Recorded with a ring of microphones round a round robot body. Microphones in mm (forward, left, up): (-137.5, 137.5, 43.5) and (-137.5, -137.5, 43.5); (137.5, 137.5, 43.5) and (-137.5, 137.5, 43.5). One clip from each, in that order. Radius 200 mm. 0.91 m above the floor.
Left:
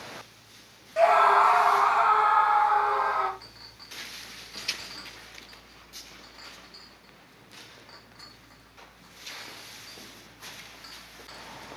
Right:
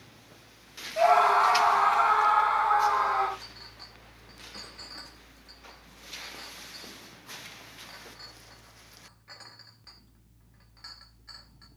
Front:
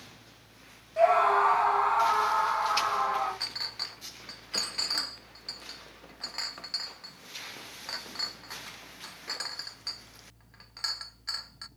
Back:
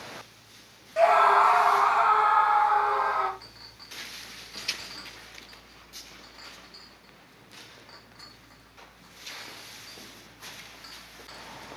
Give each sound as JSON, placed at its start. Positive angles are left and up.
{"t": 1.0, "sound": "a scream", "azimuth_deg": 145, "distance_m": 1.1}
{"t": 3.4, "sound": "a clink", "azimuth_deg": 0, "distance_m": 0.7}